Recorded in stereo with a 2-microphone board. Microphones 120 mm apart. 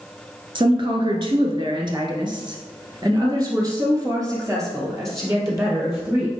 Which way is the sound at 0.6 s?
45° right (ahead or behind).